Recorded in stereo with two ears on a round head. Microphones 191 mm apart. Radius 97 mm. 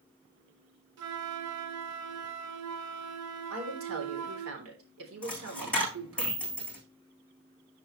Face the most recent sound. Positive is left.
turn(degrees=5)  # may be behind; listen again after turning